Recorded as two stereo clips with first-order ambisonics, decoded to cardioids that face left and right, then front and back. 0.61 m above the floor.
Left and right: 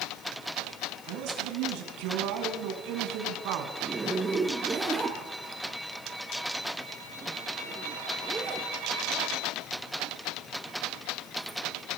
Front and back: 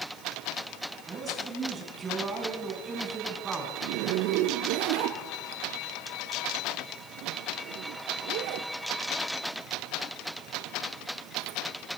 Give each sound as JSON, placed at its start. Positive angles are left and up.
{"t": 1.1, "sound": "a man speaking", "azimuth_deg": -110, "distance_m": 5.5}
{"t": 3.8, "sound": "a zipper", "azimuth_deg": -165, "distance_m": 2.5}